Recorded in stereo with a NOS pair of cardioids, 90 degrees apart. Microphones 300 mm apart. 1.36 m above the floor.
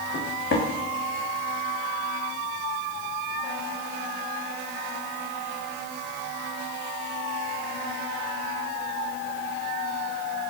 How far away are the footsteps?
About 4.5 m.